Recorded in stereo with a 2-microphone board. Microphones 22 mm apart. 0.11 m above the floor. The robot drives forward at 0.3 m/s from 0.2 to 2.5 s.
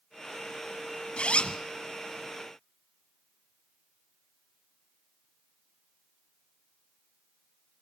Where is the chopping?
No chopping in this recording.